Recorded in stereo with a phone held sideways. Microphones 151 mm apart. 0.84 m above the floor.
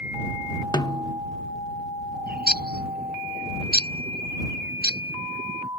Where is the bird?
90° right.